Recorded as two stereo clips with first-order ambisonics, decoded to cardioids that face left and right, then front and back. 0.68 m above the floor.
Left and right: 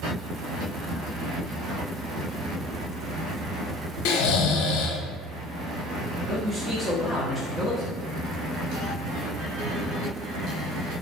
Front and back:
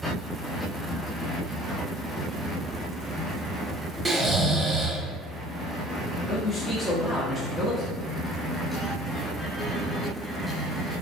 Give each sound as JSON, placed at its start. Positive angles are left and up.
{"t": 4.0, "sound": "snoring", "azimuth_deg": 105, "distance_m": 0.5}
{"t": 6.3, "sound": "a man speaking", "azimuth_deg": -30, "distance_m": 0.7}